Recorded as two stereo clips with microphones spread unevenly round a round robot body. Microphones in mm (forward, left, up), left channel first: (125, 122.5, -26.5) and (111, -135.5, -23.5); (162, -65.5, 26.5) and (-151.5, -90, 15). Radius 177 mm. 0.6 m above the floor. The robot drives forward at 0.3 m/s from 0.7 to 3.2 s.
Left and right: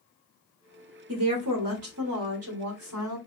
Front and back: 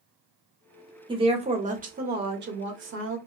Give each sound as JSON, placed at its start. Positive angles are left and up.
{"t": 1.1, "sound": "a woman speaking", "azimuth_deg": -105, "distance_m": 1.2}